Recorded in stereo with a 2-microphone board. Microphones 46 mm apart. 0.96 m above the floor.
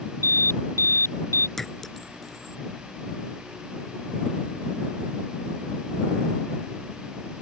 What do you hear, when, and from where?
0.2 s an alarm: 75° left (ahead or behind)
1.6 s a clink: 5° left (ahead or behind)